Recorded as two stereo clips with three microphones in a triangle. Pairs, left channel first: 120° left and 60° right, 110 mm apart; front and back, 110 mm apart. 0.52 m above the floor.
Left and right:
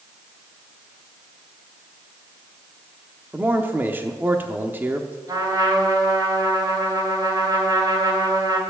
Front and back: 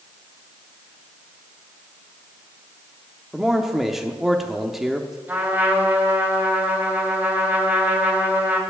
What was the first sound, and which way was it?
A man speaking, 95° right.